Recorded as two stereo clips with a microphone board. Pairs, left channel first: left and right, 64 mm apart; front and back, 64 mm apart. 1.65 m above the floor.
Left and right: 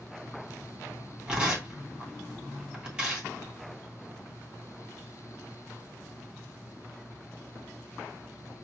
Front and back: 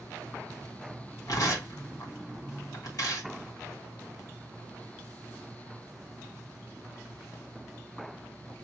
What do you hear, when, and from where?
1.3 s tearing paper: 20° right, 2.5 m